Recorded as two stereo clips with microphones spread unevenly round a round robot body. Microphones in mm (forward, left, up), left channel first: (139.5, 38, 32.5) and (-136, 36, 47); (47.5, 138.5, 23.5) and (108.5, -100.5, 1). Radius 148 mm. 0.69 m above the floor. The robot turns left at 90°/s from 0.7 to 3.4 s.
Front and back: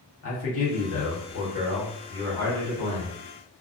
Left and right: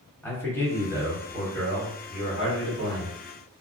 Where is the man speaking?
20° left, 1.4 m; by 3.2 s 160° left, 1.4 m.